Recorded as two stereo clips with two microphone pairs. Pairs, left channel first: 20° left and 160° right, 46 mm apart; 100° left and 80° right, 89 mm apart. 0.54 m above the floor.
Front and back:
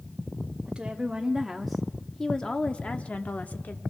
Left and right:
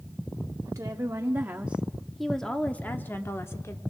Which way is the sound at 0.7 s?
100° right.